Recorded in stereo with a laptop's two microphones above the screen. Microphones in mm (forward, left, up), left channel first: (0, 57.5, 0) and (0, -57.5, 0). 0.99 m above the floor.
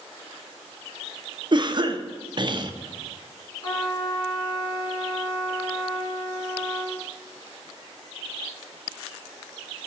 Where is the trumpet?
40° left (ahead or behind), 1.6 m.